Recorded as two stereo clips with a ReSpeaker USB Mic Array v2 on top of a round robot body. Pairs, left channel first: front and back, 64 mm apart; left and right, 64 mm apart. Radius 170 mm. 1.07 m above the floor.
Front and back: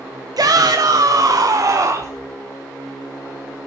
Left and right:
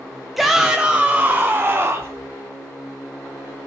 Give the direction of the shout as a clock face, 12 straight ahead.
6 o'clock.